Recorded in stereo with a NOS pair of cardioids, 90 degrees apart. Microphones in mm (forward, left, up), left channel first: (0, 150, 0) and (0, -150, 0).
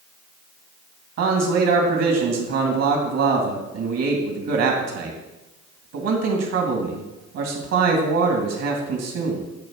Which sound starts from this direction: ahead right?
A man speaking, at 1.2 s.